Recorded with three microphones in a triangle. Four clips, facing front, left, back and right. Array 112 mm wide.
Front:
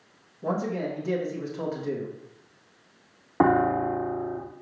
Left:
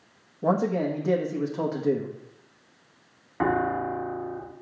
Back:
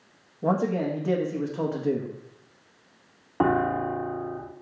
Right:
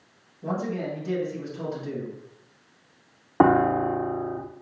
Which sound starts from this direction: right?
A piano, at 3.4 s.